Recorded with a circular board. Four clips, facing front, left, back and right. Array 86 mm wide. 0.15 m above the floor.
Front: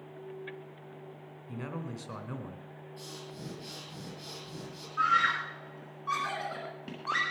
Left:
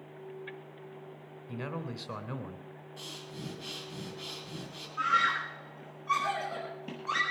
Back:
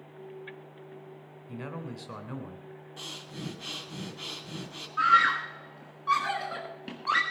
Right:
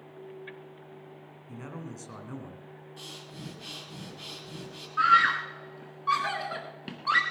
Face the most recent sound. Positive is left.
turn(degrees=-110)